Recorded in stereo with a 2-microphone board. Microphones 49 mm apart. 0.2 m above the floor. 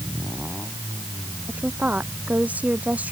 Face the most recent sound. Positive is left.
turn(degrees=-30)  # may be behind; listen again after turning